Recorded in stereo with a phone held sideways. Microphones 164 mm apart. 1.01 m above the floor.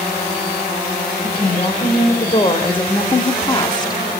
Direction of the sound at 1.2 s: 35° left (ahead or behind).